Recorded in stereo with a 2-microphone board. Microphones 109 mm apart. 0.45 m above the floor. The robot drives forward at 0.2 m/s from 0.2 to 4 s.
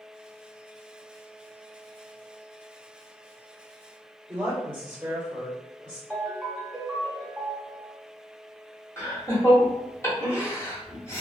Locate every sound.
4.3 s a woman speaking: 20° right (ahead or behind), 1.7 m
6.1 s a ringtone: 5° left (ahead or behind), 1.2 m
9.0 s laughter: 25° left (ahead or behind), 1.4 m